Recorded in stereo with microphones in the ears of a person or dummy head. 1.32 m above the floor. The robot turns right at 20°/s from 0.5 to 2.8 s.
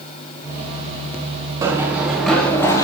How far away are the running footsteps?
About 4 m.